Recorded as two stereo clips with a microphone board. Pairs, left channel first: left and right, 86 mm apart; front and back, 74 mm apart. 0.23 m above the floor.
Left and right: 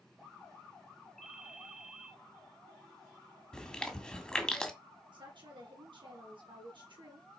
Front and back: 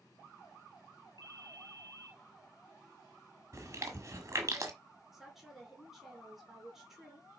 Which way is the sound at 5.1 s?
90° right.